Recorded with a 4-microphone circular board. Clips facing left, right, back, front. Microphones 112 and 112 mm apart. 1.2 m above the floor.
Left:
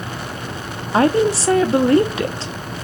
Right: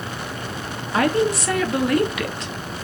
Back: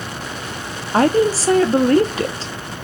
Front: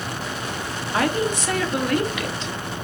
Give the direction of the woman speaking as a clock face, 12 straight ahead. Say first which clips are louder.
Left 4 dB, back 8 dB; 7 o'clock.